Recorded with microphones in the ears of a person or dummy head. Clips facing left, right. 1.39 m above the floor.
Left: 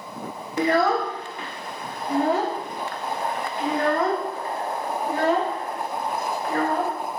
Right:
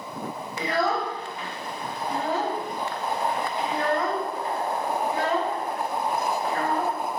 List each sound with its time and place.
0.6 s a child speaking: 50° left (ahead or behind), 0.6 m